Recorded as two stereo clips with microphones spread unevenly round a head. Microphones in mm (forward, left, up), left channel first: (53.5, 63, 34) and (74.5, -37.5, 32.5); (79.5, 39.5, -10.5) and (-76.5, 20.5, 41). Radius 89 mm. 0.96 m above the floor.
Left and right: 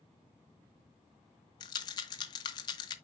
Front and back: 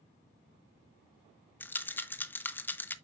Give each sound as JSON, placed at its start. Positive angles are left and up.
{"t": 1.6, "sound": "a rattle", "azimuth_deg": 105, "distance_m": 0.8}